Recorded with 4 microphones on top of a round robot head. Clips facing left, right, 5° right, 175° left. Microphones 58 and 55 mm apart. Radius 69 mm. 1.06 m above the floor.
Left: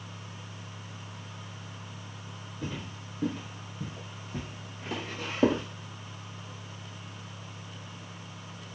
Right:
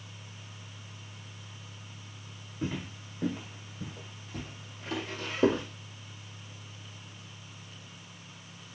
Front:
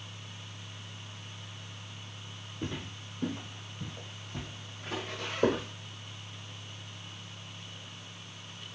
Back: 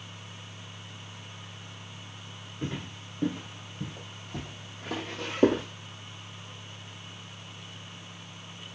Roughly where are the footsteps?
Behind right.